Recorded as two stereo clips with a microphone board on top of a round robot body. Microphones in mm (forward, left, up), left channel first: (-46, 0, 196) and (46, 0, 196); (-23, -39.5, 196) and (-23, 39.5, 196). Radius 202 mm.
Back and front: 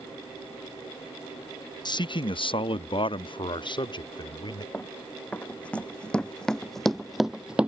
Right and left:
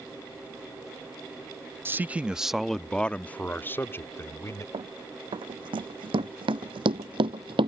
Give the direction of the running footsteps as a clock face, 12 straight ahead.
9 o'clock.